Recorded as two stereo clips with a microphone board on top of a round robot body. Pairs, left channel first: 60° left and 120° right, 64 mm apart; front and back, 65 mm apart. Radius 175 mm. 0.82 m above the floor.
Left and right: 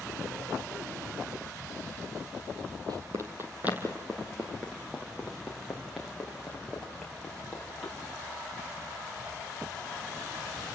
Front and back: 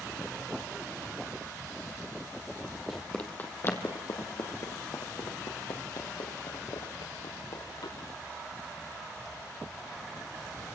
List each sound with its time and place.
2.9 s running footsteps: 90° right, 1.3 m; by 7.9 s 20° right, 6.5 m